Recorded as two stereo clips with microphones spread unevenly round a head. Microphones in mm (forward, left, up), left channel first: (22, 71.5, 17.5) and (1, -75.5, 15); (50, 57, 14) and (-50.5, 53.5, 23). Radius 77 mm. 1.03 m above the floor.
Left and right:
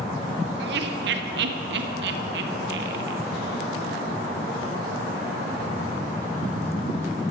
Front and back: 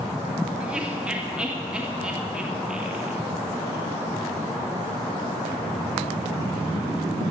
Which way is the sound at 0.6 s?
95° right.